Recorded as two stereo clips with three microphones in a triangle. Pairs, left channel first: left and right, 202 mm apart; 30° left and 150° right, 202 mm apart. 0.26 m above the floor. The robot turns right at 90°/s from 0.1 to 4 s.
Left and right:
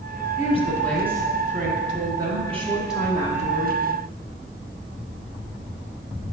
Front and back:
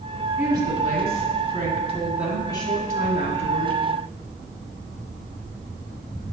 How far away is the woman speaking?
About 1.7 m.